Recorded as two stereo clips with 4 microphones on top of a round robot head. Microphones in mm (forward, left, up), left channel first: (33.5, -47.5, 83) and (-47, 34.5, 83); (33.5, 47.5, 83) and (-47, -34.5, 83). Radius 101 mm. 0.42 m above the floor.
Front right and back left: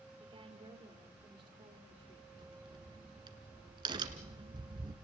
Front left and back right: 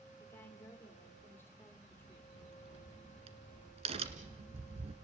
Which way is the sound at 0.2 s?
110° left.